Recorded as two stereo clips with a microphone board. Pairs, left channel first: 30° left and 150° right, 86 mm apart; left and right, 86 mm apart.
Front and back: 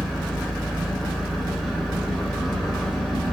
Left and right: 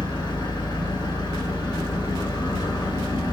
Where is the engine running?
120° left, 1.5 m.